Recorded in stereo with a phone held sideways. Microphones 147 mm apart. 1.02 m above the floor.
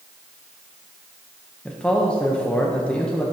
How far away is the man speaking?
About 0.7 m.